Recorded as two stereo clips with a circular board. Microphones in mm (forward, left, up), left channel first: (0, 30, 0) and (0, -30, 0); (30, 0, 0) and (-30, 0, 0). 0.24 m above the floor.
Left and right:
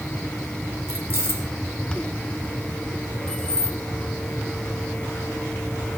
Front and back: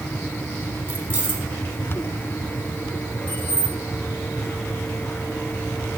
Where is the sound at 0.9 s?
130° right, 2 m.